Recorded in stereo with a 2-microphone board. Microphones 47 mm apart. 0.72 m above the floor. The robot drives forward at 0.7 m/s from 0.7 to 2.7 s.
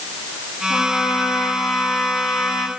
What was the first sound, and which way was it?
A trumpet, 50° left (ahead or behind).